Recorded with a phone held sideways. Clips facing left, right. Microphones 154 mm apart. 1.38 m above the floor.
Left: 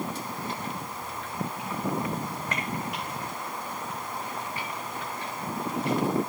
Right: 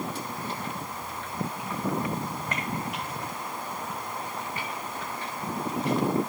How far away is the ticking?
I don't hear ticking.